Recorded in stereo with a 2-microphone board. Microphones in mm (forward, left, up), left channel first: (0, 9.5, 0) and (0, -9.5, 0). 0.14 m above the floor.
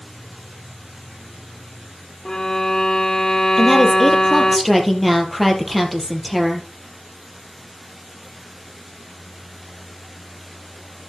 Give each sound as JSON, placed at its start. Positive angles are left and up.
{"t": 2.2, "sound": "a violin", "side_deg": 35, "distance_m": 0.8}
{"t": 3.6, "sound": "a woman speaking", "side_deg": 5, "distance_m": 3.5}